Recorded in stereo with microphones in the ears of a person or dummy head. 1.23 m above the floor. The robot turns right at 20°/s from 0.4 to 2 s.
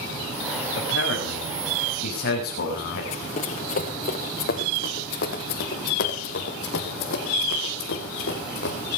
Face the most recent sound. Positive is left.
turn(degrees=55)  # may be behind; listen again after turning